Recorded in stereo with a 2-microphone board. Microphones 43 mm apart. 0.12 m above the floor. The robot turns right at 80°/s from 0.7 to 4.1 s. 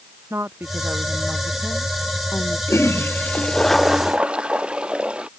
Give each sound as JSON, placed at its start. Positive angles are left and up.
{"t": 0.3, "sound": "a woman speaking", "azimuth_deg": -75}
{"t": 2.7, "sound": "a toilet flushing", "azimuth_deg": 90}